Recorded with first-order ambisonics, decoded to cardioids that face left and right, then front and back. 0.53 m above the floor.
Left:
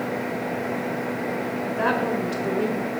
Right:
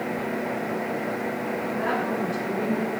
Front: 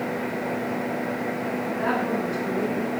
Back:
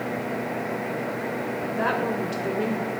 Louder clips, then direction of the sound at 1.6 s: Left 4 dB, back 1 dB; 120° left.